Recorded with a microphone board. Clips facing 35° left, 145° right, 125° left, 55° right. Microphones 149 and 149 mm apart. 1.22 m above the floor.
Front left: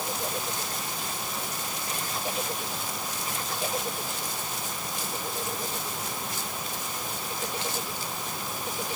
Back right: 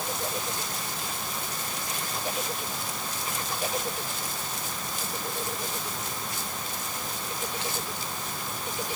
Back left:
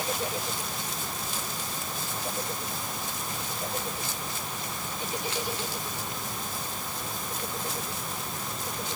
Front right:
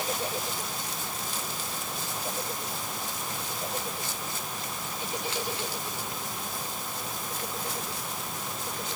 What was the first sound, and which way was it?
Only background noise.